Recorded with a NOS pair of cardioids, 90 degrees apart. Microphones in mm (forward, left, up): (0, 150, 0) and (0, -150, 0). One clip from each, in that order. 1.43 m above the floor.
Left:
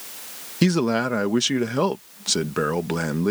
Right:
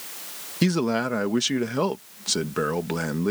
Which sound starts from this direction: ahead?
A man speaking, at 0.6 s.